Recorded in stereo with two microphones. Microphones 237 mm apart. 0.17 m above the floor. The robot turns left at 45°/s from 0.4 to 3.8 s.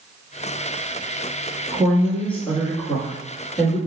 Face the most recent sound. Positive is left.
turn(degrees=105)